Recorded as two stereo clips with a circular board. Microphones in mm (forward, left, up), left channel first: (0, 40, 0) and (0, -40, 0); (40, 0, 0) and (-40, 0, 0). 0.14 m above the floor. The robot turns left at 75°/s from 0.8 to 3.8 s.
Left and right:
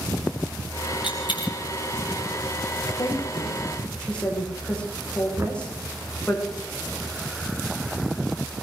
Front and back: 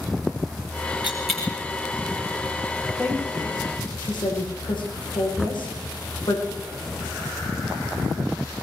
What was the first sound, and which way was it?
A dropped coin, 110° left.